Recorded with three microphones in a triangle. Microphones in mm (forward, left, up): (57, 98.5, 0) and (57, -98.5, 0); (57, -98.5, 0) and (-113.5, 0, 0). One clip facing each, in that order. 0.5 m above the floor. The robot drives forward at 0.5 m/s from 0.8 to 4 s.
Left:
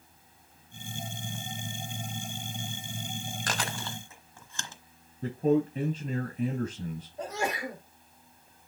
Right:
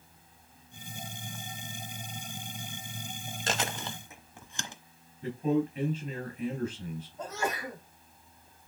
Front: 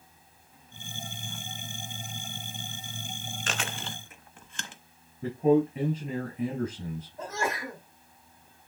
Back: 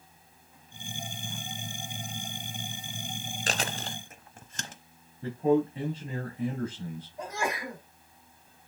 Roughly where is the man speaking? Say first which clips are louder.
Left 3 dB, front 2 dB; ahead left.